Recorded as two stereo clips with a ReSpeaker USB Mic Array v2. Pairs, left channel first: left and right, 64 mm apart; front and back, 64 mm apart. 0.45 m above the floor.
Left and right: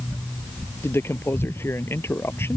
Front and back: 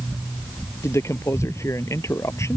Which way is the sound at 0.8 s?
40° left.